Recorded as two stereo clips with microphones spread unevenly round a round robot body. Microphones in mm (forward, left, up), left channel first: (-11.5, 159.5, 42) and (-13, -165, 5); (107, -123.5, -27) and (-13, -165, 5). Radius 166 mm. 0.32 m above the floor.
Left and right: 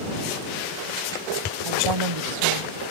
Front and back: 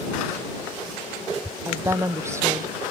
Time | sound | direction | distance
1.6 | a woman speaking | 95° right | ?